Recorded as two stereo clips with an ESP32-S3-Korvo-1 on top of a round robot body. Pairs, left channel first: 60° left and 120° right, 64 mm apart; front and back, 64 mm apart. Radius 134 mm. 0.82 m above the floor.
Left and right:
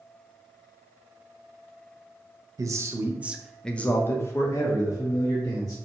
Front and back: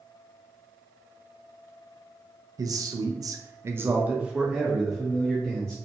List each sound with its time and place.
2.6 s a man speaking: 155° right, 0.7 m; by 5.8 s 85° left, 1.4 m